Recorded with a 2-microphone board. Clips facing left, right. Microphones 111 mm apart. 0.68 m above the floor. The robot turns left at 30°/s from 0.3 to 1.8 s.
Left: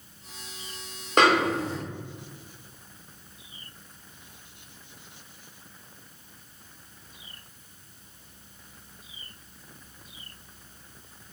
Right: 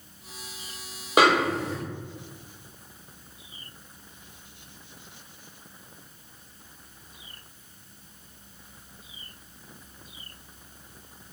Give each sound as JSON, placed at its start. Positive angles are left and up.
{"t": 1.2, "sound": "a snare drum", "side_deg": -10, "distance_m": 1.3}